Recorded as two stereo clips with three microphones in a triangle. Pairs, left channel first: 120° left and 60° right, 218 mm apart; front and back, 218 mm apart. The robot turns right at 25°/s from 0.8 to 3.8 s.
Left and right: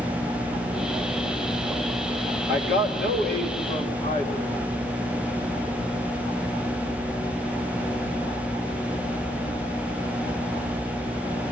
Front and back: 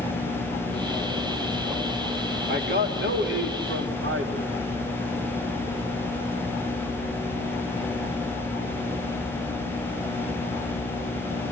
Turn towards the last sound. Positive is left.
turn(degrees=170)